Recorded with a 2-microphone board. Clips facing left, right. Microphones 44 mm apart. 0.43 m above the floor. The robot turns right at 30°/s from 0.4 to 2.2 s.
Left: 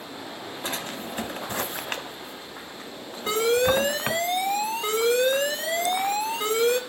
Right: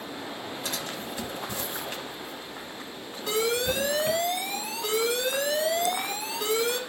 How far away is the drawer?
About 0.5 m.